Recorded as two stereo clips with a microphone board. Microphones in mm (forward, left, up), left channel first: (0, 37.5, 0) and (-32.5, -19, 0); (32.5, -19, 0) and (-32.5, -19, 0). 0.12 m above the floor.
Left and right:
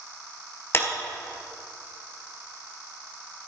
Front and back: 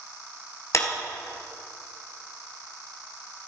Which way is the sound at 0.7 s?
20° left.